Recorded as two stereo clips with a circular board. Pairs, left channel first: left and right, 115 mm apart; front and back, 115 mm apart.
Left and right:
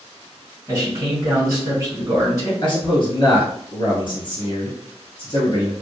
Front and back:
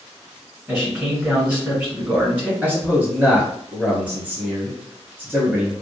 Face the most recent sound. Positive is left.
turn(degrees=105)